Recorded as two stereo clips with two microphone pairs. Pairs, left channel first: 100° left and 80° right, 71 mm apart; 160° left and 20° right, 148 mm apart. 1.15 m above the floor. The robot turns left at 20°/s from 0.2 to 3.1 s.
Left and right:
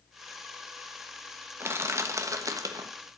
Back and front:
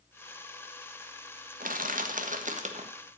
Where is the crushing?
25° right, 1.4 m; by 2.9 s 50° right, 1.4 m.